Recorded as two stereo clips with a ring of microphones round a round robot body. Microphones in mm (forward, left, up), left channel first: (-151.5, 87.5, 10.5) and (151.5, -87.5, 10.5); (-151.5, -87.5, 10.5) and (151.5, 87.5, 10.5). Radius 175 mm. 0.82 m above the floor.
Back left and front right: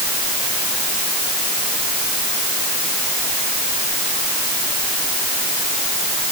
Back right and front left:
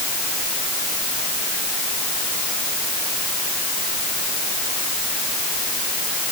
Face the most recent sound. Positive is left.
No sound to turn to.